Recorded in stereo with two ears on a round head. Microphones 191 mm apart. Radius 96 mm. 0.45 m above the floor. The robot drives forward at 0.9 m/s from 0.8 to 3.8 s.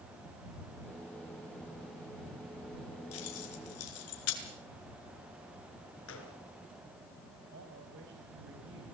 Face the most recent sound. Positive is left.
turn(degrees=-65)  # may be behind; listen again after turning